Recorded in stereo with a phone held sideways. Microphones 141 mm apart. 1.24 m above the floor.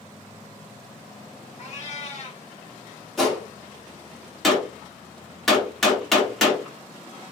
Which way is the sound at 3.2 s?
Centre (ahead or behind).